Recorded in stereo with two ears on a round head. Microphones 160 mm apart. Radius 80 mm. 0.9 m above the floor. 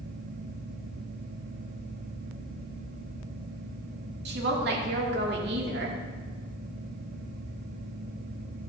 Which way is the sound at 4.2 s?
60° right (ahead or behind).